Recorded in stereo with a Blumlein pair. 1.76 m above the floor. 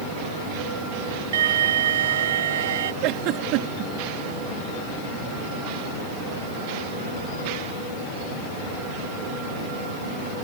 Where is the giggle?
40° right.